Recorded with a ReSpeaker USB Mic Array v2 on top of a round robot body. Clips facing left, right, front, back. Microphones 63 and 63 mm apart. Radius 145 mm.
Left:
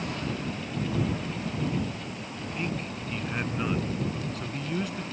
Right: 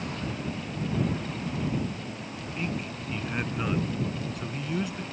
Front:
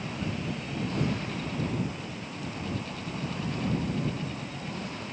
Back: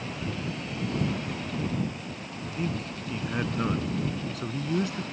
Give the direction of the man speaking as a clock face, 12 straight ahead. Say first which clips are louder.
Even, back 5 dB; 6 o'clock.